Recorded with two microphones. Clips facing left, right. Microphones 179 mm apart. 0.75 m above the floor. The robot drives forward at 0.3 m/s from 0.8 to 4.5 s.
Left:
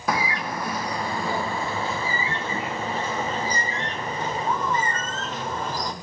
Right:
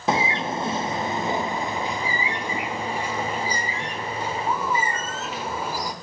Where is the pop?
I don't hear a pop.